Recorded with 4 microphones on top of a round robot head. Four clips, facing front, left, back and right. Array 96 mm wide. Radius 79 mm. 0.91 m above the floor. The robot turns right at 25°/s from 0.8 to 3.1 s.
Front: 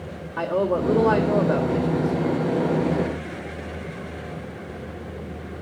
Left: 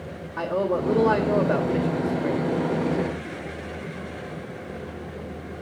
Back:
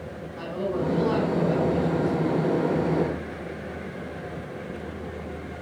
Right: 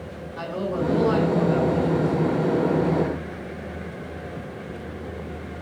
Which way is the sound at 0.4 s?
30° left.